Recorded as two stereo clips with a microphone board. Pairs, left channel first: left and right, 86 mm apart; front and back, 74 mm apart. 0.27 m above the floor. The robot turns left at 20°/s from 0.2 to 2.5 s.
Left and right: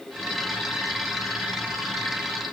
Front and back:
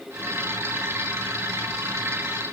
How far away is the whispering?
No whispering in this recording.